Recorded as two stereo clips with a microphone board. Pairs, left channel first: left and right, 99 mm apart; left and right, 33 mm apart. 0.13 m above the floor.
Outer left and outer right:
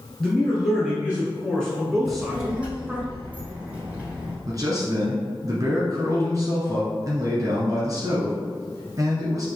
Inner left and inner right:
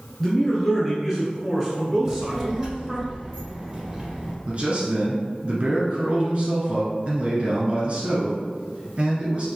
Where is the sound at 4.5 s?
40° right (ahead or behind), 1.4 m.